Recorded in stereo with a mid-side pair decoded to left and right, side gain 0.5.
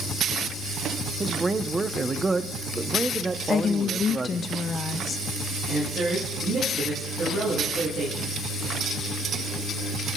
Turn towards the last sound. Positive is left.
turn(degrees=-45)